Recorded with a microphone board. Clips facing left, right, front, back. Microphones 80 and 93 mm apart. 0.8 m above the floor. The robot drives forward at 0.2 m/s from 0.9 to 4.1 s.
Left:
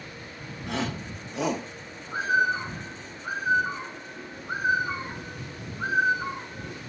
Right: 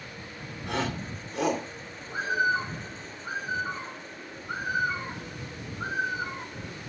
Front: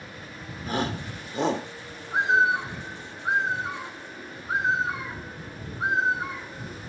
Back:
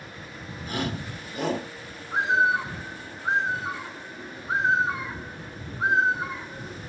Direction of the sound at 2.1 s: 120° left.